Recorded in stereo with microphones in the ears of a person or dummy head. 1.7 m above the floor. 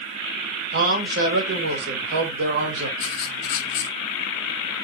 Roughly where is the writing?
Left.